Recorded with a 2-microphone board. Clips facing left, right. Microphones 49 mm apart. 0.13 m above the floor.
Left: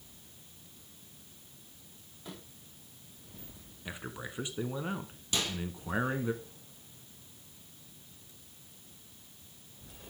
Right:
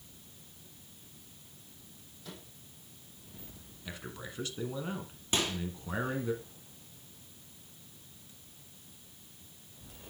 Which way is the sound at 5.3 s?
30° right (ahead or behind).